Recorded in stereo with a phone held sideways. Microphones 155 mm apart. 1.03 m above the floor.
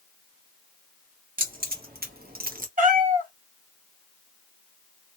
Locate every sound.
1.4 s keys jangling: 70° right (ahead or behind), 1.2 m; by 2.7 s 65° right (ahead or behind), 0.8 m
2.8 s a cat meowing: 60° right (ahead or behind), 0.9 m